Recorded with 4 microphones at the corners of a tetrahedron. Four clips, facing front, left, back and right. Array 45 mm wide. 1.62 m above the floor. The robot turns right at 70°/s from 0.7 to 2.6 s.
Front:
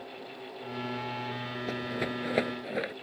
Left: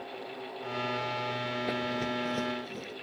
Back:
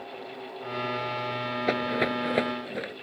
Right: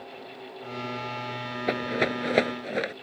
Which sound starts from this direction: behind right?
A rattle, at 1.7 s.